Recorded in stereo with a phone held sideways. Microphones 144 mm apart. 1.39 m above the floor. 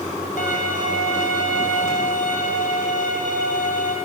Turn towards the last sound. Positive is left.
turn(degrees=70)  # may be behind; listen again after turning